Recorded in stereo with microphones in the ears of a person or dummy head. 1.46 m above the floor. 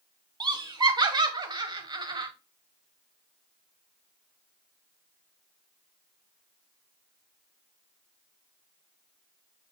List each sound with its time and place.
0.4 s laughter: 20° right (ahead or behind), 1.1 m